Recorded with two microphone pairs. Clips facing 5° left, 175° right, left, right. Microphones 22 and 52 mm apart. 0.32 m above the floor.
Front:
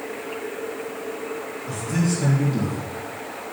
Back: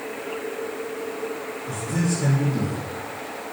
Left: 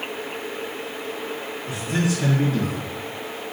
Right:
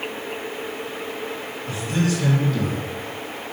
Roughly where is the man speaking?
Ahead.